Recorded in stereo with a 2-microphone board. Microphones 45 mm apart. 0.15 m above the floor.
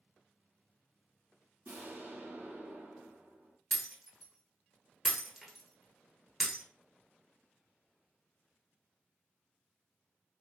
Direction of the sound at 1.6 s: 50° right (ahead or behind).